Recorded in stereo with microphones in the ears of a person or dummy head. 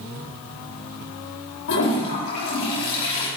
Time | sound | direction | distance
1.7 | a toilet flushing | 65° left (ahead or behind) | 4.5 m